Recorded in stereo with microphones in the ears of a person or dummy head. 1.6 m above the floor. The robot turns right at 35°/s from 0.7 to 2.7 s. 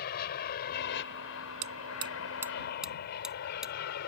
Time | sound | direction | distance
0.0 | an aircraft | 55° left (ahead or behind) | ?
1.6 | hammering | 40° right (ahead or behind) | ?